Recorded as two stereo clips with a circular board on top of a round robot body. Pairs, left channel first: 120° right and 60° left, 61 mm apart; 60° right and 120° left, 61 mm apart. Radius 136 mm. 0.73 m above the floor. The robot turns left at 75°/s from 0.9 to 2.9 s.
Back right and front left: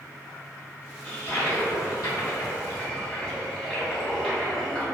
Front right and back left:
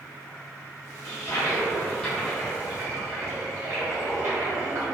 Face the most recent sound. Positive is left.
turn(degrees=165)